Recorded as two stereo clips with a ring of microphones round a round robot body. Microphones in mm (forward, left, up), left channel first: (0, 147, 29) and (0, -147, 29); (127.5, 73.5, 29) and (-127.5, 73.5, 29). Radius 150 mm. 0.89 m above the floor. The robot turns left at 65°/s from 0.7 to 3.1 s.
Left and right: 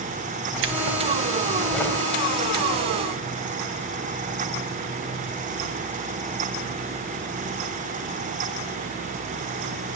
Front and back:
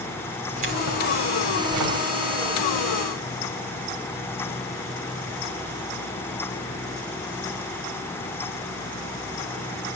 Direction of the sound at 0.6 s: 115° right.